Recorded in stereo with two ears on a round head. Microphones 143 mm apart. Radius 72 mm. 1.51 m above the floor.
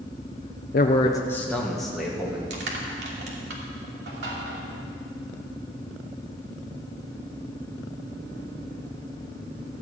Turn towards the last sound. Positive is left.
turn(degrees=-75)  # may be behind; listen again after turning